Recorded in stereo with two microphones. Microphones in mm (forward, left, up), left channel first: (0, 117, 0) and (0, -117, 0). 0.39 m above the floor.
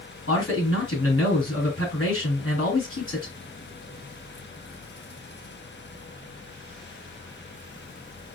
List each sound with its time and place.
0.3 s a man speaking: 60° left (ahead or behind), 3.5 m